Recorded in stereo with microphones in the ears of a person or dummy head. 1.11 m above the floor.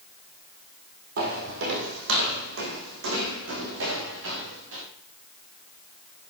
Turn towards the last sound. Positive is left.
turn(degrees=-80)